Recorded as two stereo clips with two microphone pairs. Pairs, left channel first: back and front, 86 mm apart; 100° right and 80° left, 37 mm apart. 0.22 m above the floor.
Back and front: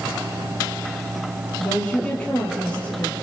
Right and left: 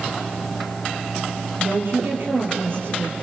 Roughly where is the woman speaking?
Left.